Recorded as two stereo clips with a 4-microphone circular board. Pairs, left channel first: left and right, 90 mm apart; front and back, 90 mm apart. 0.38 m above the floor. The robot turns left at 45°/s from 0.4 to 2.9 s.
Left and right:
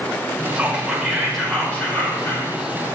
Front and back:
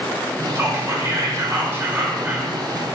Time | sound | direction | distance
0.6 | whispering | 155° right | 0.9 m